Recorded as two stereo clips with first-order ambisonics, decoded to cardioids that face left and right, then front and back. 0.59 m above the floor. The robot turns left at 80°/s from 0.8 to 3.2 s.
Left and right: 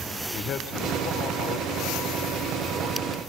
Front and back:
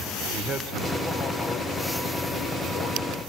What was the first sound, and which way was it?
A man speaking, 130° left.